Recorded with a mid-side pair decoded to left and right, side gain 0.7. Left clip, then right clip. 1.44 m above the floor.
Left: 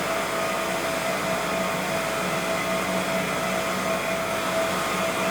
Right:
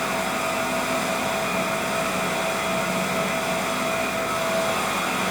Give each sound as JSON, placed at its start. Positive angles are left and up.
{"t": 0.0, "sound": "a fan", "azimuth_deg": -25, "distance_m": 6.5}